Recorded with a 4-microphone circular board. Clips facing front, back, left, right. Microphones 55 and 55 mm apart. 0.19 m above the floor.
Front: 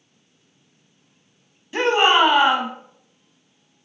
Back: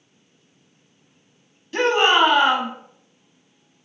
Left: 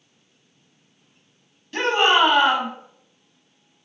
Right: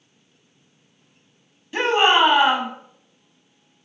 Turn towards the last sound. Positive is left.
turn(degrees=-40)